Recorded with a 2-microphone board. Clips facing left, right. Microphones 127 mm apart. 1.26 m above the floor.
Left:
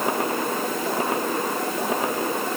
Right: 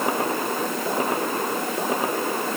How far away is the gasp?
No gasp in this recording.